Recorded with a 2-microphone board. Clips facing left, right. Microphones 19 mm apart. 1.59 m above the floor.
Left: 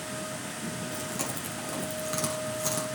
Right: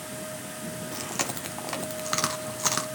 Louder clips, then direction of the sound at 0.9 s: Right 2 dB; 50° right (ahead or behind).